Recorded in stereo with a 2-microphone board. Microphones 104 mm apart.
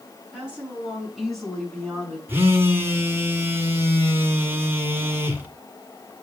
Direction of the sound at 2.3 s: 20° right (ahead or behind).